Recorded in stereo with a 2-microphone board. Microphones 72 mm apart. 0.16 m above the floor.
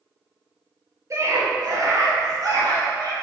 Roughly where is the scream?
Right.